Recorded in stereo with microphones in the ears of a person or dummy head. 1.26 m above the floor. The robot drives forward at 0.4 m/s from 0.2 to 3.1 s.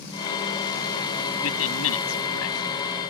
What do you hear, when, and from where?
1.4 s a man speaking: 80° left